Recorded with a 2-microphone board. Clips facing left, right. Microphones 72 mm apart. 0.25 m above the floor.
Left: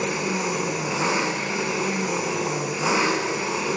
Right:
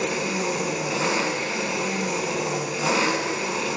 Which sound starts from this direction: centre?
An engine running, at 0.0 s.